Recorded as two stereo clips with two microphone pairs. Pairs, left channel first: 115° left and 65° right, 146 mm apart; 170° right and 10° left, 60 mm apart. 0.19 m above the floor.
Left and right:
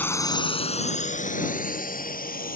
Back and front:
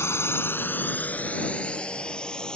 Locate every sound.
0.0 s a drone: 175° right; by 2.5 s 115° left